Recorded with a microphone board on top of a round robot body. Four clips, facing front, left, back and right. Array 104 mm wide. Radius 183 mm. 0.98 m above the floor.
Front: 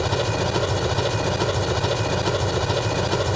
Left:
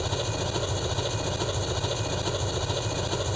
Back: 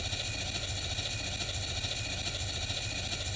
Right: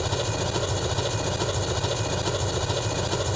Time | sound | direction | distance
0.0 | an engine running | 10° right | ?